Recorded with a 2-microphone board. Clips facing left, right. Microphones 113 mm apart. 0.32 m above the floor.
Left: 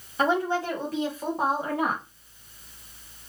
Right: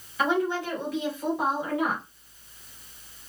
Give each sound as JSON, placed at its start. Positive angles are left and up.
{"t": 0.2, "sound": "a woman speaking", "side_deg": 35, "distance_m": 1.7}